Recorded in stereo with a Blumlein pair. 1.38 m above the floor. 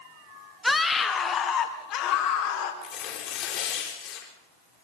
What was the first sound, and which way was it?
A scream, 5° left.